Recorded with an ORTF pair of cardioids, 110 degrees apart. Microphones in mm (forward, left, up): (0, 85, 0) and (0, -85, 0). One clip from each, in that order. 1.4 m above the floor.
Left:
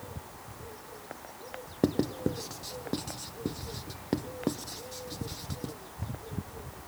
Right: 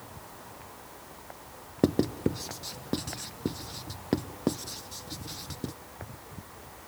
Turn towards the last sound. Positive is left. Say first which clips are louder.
# right 2 dB
turn(degrees=-10)